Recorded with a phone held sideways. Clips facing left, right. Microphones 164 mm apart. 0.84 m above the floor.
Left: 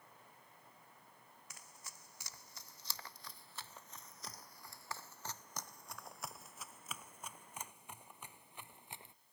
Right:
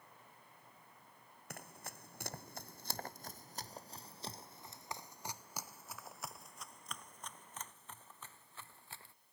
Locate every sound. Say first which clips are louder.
1.5 s running footsteps: right 11 dB; 65° right (ahead or behind); by 9.1 s 20° left (ahead or behind)